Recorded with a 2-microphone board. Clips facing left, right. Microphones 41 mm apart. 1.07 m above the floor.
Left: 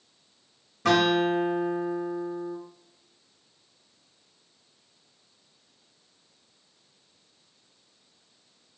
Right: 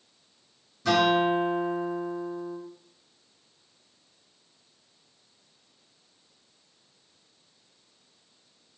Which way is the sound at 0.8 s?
55° left (ahead or behind).